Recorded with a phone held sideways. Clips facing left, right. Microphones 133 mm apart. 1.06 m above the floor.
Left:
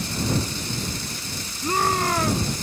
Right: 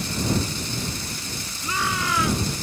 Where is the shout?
45° left (ahead or behind); by 2.6 s 40° left (ahead or behind).